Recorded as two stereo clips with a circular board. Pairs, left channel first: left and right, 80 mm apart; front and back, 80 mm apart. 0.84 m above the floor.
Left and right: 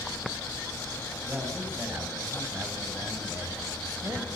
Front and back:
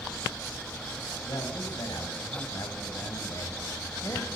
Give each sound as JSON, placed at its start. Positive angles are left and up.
{"t": 1.2, "sound": "a man speaking", "azimuth_deg": -25, "distance_m": 6.5}